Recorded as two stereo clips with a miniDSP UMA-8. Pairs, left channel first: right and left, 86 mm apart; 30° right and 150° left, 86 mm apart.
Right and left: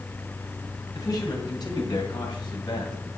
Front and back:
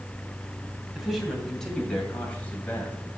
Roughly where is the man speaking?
Behind right.